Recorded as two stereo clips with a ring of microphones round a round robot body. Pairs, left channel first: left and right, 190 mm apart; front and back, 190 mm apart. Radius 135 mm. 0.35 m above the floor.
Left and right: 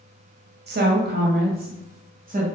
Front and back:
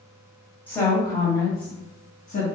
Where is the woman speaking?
80° right, 1.7 m; by 2.5 s 55° right, 2 m.